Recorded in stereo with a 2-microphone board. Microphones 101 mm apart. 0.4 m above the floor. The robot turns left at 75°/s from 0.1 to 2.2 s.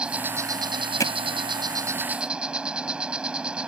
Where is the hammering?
30° left (ahead or behind); by 1.1 s 40° left (ahead or behind).